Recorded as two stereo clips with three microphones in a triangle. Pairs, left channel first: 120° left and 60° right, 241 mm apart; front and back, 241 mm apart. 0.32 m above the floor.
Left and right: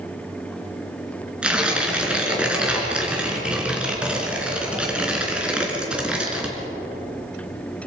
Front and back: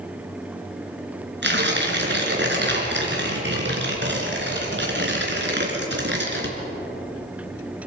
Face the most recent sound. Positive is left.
turn(degrees=-145)